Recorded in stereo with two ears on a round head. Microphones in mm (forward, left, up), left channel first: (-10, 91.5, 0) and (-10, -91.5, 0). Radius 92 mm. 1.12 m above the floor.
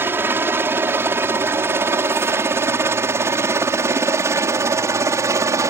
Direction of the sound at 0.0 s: 10° right (ahead or behind).